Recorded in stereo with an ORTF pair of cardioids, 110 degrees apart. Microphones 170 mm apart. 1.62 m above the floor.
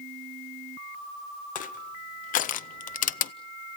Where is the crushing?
55° left, 0.7 m.